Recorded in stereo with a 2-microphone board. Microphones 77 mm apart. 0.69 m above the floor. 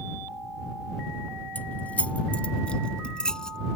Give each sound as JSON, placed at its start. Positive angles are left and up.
{"t": 1.6, "sound": "keys jangling", "side_deg": 20}